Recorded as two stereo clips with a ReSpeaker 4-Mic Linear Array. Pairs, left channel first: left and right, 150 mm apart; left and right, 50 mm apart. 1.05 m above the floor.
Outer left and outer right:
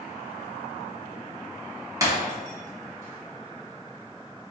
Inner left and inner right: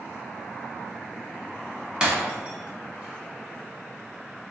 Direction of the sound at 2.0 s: 20° right (ahead or behind).